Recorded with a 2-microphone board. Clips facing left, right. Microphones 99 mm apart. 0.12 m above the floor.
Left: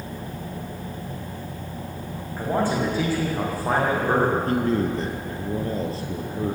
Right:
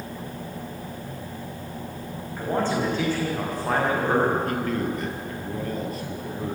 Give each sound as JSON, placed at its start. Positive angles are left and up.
{"t": 2.4, "sound": "a man speaking", "side_deg": 10, "distance_m": 8.0}
{"t": 4.5, "sound": "a man speaking", "side_deg": 30, "distance_m": 3.0}